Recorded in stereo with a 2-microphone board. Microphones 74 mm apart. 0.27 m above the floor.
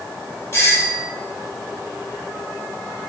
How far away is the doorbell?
About 2.5 m.